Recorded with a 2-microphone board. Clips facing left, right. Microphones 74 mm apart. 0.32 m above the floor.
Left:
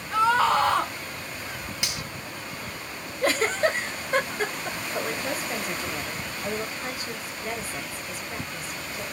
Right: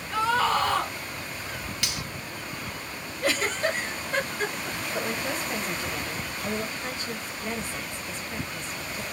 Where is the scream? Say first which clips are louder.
Left 3 dB; 20° left (ahead or behind), 1.5 m.